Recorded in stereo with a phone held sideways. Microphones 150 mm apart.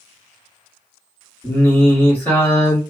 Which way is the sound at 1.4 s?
10° left (ahead or behind).